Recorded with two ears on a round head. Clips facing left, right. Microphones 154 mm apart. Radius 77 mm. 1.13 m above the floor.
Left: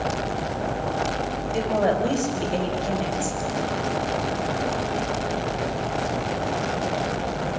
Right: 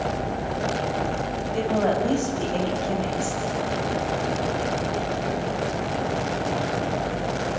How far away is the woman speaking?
About 6.5 m.